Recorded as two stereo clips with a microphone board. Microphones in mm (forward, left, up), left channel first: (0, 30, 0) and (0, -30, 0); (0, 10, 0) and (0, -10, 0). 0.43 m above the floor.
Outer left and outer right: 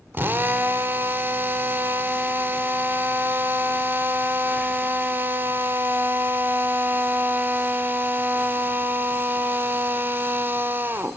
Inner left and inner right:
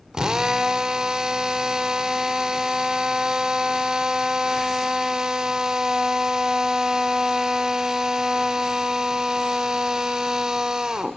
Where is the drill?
35° right (ahead or behind), 0.8 m.